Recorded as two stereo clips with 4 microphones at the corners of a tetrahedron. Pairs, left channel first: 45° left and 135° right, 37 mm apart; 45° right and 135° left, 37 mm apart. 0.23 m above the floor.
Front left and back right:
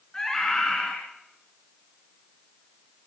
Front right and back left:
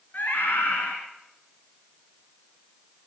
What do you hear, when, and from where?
0.1 s a scream: 20° right, 2.5 m